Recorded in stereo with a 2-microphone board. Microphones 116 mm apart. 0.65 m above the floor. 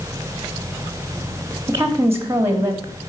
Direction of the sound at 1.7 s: 20° right (ahead or behind).